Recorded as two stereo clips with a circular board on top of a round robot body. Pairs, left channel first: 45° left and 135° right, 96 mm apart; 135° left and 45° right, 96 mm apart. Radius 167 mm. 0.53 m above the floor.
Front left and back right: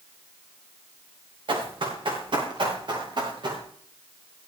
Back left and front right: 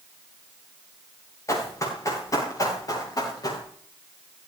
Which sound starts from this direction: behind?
Running footsteps, at 1.5 s.